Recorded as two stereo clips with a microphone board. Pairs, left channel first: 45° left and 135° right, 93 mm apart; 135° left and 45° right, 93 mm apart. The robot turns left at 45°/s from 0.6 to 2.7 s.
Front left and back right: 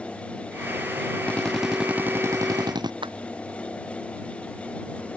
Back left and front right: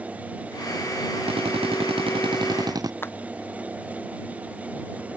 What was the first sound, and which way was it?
A drill, 30° right.